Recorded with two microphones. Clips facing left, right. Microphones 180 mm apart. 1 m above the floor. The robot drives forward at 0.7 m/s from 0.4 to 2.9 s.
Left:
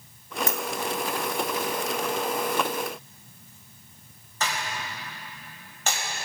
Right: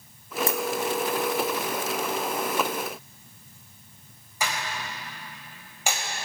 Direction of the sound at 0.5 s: 30° right (ahead or behind).